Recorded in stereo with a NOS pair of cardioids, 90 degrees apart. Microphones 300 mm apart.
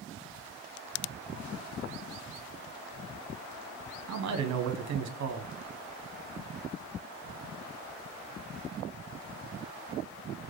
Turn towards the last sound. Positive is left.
turn(degrees=-65)